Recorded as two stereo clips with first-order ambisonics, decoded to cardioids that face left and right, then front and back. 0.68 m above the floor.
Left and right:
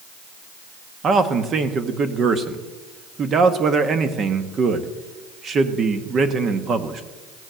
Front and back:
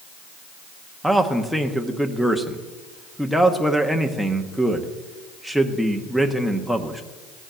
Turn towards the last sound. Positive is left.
turn(degrees=-90)